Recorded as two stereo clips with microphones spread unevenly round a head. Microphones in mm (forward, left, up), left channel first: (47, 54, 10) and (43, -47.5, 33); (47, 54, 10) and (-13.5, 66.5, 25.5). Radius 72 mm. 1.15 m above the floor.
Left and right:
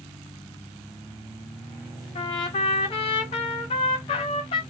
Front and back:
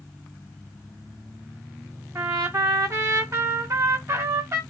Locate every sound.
2.1 s a trumpet: 125° left, 2.0 m